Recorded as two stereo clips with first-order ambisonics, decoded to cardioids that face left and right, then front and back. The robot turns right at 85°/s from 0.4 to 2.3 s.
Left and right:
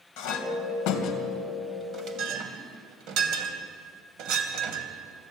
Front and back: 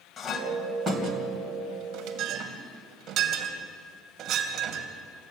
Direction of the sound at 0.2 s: 70° left.